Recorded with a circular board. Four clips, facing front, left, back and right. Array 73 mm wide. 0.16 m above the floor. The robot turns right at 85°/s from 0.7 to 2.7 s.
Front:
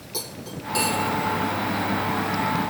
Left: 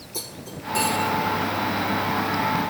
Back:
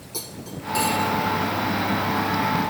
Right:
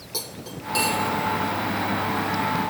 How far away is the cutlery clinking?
About 4 m.